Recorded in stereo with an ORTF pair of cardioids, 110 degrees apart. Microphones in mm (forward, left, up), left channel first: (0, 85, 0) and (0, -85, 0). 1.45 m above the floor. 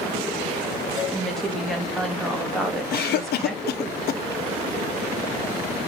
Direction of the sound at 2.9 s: 70° left.